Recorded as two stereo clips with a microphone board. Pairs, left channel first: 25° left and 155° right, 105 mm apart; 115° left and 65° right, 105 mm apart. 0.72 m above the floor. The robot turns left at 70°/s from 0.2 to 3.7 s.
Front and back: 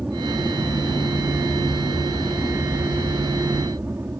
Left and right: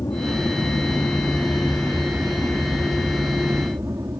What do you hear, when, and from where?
0.0 s an aircraft: 130° left; by 4.2 s 105° right